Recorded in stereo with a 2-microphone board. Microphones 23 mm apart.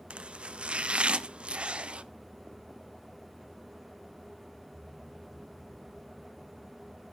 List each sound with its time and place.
0.1 s chopping: 55° right (ahead or behind), 0.5 m